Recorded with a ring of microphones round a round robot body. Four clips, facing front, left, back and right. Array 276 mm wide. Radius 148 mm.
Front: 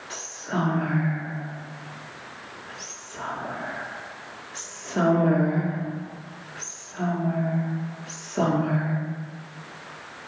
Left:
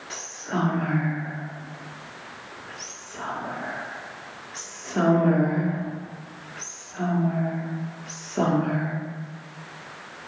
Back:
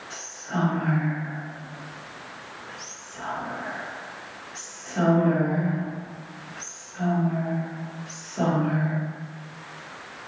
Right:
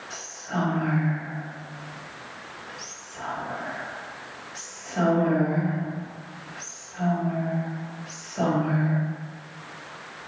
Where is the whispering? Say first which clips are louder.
Left 2 dB, front 1 dB; 55° left, 1.1 m.